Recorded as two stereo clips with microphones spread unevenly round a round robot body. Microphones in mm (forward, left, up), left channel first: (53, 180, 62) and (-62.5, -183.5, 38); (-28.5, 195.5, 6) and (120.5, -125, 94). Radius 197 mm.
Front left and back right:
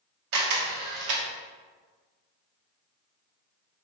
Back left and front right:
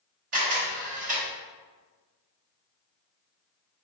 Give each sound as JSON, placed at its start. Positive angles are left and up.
{"t": 0.3, "sound": "a camera shutter", "azimuth_deg": -120, "distance_m": 0.9}